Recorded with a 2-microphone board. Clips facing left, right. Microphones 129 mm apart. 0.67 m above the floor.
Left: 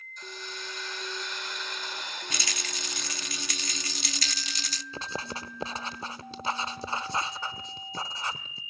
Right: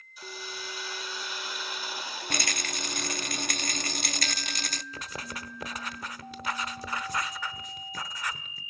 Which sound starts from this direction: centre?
A hiss, at 0.2 s.